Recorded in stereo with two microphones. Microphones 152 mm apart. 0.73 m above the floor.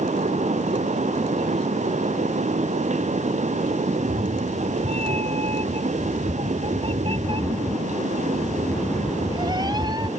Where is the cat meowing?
45° right (ahead or behind); by 10.1 s 25° right (ahead or behind).